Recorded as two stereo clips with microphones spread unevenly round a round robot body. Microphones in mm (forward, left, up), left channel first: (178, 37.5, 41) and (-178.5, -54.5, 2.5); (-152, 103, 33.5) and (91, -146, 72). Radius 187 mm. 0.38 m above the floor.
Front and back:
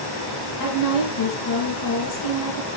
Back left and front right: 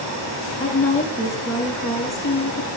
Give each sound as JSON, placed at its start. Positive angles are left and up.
{"t": 0.6, "sound": "a woman speaking", "azimuth_deg": 55, "distance_m": 6.0}